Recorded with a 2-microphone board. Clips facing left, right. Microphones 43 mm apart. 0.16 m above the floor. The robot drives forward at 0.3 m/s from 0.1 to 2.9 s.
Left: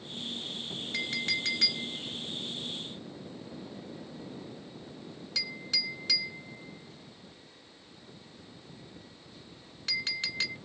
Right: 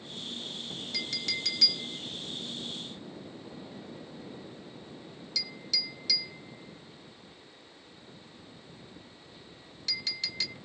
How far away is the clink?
About 1.3 m.